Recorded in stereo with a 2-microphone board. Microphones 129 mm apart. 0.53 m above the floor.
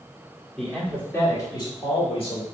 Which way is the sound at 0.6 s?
5° left (ahead or behind).